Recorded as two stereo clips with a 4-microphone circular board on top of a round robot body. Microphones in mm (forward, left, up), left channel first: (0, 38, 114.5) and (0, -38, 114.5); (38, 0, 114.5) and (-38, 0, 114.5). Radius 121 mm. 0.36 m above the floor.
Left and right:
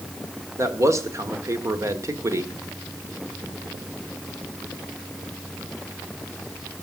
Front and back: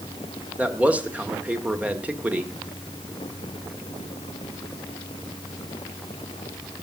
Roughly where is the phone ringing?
No phone ringing in this recording.